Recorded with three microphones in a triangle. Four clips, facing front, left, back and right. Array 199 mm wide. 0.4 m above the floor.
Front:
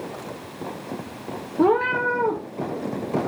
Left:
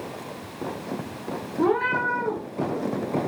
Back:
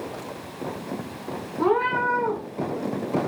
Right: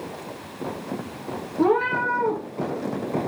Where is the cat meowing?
5° right, 4.5 m.